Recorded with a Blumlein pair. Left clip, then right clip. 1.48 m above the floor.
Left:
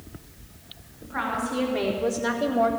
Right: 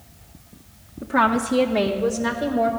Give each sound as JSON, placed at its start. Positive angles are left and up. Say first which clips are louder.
{"t": 1.0, "sound": "a woman speaking", "louder": "right 9 dB", "azimuth_deg": -55, "distance_m": 1.1}